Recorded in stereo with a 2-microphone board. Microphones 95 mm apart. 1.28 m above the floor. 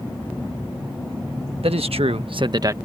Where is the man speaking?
85° right; by 2.8 s 30° right (ahead or behind).